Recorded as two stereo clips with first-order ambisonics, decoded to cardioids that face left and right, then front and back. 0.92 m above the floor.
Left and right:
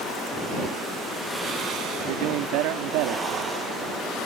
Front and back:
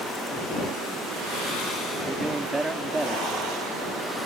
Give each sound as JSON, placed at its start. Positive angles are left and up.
{"t": 2.1, "sound": "a man speaking", "azimuth_deg": -100}